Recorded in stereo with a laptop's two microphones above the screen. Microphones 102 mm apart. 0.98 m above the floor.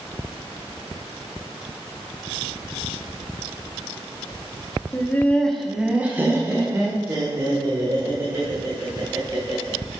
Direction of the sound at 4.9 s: 20° left (ahead or behind).